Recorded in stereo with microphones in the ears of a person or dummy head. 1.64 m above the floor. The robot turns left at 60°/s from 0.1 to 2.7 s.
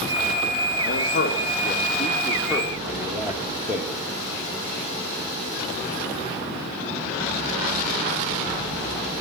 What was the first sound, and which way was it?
A man speaking, 100° left.